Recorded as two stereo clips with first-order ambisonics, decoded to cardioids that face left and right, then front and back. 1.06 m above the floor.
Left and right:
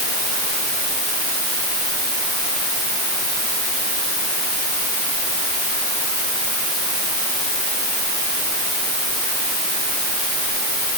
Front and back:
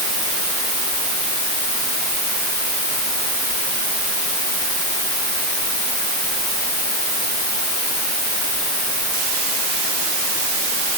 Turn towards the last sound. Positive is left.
No sound to turn to.